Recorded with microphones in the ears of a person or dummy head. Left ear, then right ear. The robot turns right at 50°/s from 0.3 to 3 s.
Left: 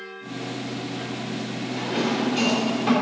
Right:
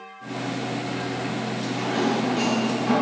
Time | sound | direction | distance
1.6 | a drawer | 25° right (ahead or behind) | 4.5 m